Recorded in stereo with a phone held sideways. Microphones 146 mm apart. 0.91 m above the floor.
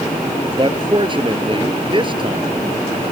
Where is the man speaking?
35° right (ahead or behind).